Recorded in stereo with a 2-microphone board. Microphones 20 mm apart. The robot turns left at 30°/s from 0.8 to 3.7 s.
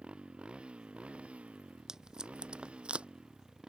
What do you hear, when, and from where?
0.0 s a motorcycle: 55° right (ahead or behind); by 3.7 s 35° right (ahead or behind)
1.9 s tape being pulled: 25° right (ahead or behind); by 3.1 s 60° right (ahead or behind)